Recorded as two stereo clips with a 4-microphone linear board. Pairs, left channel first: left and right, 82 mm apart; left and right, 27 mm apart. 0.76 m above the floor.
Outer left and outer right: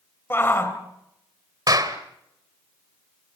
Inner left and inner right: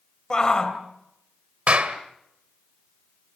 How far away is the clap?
About 2 m.